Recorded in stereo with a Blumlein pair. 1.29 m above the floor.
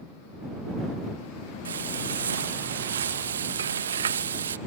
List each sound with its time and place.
1.6 s frying: 70° right